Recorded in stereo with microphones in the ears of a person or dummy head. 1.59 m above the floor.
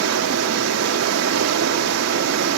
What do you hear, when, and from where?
0.0 s running water: 75° right (ahead or behind), 1.3 m